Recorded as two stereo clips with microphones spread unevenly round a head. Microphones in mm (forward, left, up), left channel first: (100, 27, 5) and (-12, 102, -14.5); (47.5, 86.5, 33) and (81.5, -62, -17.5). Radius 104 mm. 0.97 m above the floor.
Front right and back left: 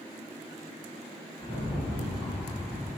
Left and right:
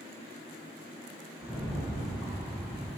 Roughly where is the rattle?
Behind left.